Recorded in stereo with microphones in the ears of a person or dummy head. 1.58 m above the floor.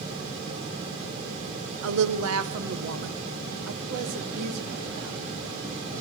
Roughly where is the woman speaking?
Right.